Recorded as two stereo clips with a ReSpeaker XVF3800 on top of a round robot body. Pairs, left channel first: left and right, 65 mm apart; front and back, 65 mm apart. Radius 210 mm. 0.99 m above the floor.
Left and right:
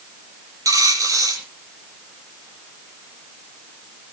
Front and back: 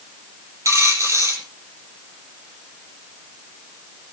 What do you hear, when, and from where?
0.7 s a dropped coin: 130° right, 8 m